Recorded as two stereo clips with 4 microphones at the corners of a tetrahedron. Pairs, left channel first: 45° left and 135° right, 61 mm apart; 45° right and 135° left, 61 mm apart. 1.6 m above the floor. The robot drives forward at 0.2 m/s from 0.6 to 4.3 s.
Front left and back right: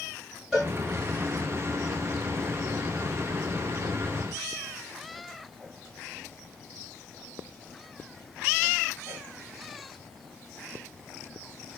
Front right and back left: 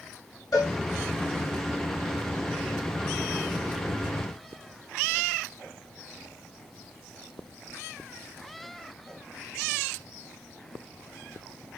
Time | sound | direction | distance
0.5 | a cowbell | 50° right | 1.9 m